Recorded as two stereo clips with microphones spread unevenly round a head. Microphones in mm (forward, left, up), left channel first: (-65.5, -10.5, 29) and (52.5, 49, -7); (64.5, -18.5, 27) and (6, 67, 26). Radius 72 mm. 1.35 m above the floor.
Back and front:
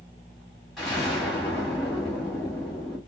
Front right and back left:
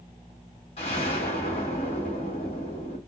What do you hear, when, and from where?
0.8 s an explosion: 75° right, 1.1 m